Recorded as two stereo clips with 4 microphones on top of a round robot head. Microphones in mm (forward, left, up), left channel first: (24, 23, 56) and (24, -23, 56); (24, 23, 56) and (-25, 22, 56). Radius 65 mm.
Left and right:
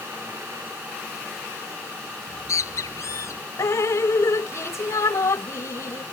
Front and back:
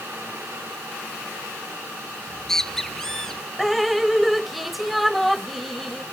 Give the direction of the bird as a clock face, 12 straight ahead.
9 o'clock.